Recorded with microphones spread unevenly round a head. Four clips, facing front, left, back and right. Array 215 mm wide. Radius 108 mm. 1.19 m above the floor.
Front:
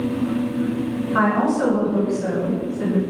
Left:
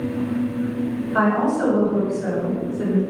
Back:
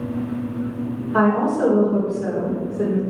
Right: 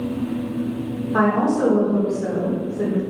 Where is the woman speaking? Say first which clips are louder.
Right 1 dB, back 1 dB; 135° right, 4 m.